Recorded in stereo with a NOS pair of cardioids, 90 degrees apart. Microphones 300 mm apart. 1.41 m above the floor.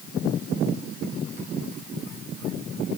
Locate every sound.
Only background noise.